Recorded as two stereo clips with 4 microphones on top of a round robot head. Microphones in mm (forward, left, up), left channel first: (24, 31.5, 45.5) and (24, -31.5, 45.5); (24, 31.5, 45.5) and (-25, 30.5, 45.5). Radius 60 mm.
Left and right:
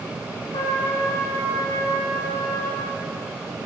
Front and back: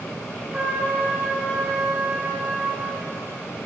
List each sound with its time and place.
0.5 s a trumpet: 120° left, 5 m